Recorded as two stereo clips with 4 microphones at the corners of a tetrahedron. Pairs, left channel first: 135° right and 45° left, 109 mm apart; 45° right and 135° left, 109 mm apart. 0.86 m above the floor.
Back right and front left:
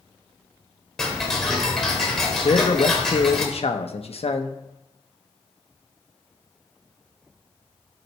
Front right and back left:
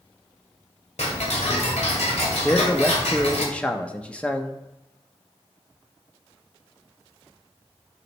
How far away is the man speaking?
About 0.9 m.